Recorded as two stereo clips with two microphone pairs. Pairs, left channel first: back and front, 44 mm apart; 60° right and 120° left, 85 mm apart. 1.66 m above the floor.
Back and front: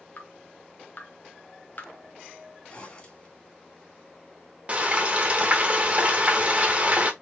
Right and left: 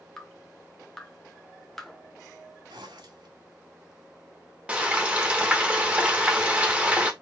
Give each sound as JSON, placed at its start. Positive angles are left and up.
{"t": 0.2, "sound": "dripping", "azimuth_deg": -145, "distance_m": 1.0}
{"t": 2.7, "sound": "a zipper", "azimuth_deg": 120, "distance_m": 1.7}
{"t": 4.7, "sound": "frying", "azimuth_deg": 45, "distance_m": 1.1}